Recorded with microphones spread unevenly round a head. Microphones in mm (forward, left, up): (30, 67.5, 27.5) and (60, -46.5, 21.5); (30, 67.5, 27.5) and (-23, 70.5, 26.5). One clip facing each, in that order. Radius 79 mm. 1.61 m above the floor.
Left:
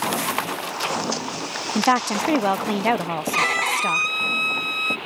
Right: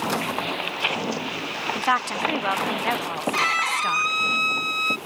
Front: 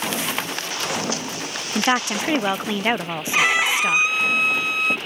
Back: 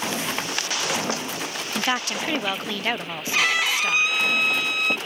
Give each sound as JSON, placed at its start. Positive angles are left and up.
{"t": 1.8, "sound": "a woman speaking", "azimuth_deg": 60}
{"t": 3.3, "sound": "a violin", "azimuth_deg": 65}